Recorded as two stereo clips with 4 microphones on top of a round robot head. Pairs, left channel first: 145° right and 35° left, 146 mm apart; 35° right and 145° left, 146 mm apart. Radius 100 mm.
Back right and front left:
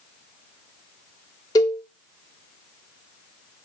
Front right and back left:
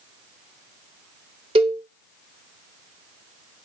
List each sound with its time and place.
1.6 s a cowbell: 165° left, 0.5 m